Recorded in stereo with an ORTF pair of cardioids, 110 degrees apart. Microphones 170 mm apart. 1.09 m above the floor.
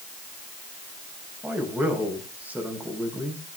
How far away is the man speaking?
About 5.5 m.